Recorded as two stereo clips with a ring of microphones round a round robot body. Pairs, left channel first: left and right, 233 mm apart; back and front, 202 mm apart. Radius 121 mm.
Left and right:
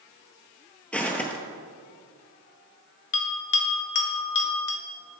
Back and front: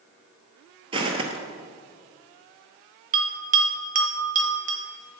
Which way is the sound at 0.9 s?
15° left.